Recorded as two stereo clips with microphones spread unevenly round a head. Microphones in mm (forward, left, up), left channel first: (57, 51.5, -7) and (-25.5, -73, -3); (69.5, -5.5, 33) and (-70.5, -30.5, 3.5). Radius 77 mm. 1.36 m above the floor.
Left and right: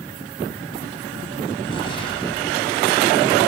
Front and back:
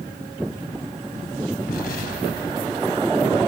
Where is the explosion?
Straight ahead, 3 m.